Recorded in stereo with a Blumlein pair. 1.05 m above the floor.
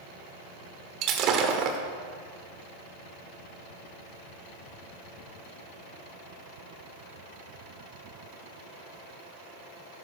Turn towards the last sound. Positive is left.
turn(degrees=-35)